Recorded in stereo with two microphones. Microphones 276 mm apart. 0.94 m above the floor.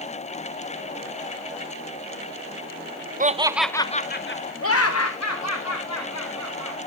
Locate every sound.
3.2 s laughter: 30° right (ahead or behind), 0.6 m; by 6.8 s 75° left (ahead or behind), 2.5 m